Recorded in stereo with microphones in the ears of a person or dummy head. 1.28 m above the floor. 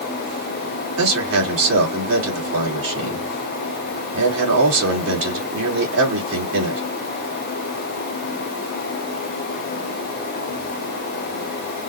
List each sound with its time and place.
1.0 s a man speaking: 80° right, 3 m